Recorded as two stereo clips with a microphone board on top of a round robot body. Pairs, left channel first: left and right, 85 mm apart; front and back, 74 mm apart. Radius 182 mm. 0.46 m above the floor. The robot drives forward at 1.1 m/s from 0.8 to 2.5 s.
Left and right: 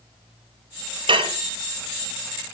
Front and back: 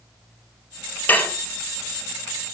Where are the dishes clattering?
70° right, 1.8 m; by 1.4 s 75° right, 1.7 m.